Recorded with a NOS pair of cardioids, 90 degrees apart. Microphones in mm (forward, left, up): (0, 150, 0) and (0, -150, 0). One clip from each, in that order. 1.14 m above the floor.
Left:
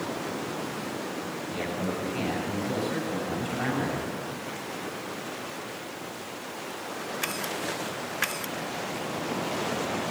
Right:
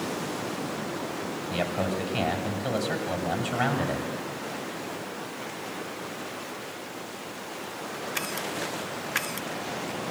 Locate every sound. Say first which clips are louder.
1.5 s a man speaking: right 4 dB; 65° right, 7 m